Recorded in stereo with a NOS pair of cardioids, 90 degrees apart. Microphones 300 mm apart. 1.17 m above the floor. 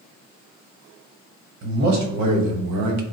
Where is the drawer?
I don't hear a drawer.